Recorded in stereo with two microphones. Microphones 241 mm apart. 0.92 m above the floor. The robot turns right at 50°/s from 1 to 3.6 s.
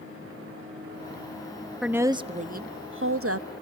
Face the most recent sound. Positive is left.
turn(degrees=-90)